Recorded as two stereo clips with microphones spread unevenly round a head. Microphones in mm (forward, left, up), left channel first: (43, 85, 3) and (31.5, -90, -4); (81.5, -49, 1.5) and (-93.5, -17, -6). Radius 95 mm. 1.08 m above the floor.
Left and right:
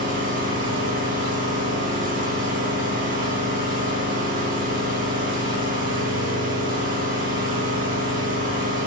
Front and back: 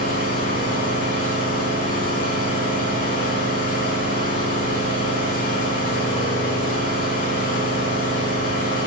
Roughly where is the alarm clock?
No alarm clock in this recording.